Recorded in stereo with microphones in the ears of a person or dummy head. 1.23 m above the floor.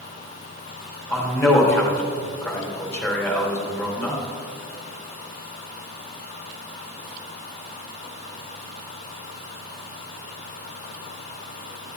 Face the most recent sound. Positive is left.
turn(degrees=20)  # may be behind; listen again after turning